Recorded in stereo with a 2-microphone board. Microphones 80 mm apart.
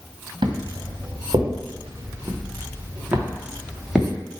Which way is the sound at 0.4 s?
75° right (ahead or behind).